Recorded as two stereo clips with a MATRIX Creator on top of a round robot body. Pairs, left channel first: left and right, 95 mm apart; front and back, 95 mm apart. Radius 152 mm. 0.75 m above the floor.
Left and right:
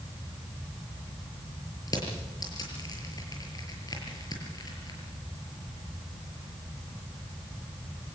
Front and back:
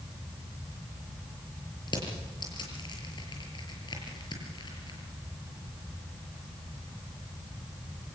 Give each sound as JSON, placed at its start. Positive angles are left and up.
{"t": 1.9, "sound": "crushing", "azimuth_deg": 40, "distance_m": 6.0}